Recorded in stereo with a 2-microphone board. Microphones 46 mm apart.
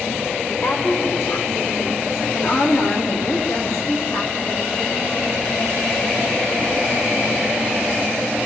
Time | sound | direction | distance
0.5 | a woman speaking | 50° left (ahead or behind) | 9 m